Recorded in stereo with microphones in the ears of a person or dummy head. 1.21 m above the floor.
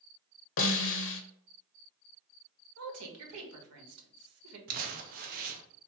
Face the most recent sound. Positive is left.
turn(degrees=-45)  # may be behind; listen again after turning